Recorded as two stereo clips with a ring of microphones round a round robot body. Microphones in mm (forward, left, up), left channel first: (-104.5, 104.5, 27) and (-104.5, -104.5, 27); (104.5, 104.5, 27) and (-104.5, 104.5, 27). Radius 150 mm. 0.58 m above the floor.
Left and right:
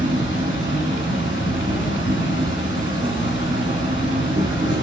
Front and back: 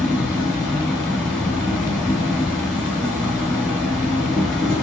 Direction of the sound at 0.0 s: 95° right.